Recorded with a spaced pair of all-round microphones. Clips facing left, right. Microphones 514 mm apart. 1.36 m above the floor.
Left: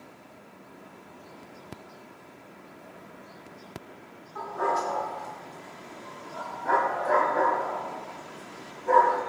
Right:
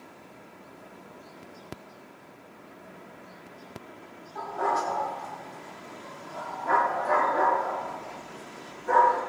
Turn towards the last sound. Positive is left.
turn(degrees=-30)  # may be behind; listen again after turning